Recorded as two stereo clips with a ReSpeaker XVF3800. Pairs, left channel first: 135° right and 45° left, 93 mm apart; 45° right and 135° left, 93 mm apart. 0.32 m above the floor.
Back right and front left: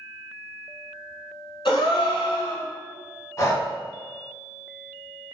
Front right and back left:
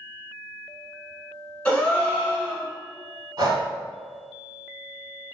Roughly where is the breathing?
Behind.